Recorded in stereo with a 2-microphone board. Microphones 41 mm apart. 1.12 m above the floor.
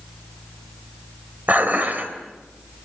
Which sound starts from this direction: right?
Dishes clattering, at 1.5 s.